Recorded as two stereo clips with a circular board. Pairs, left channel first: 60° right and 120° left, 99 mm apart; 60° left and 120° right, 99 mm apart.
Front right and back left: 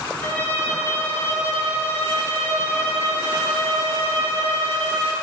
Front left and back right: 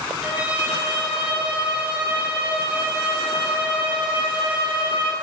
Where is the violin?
65° right, 0.6 m.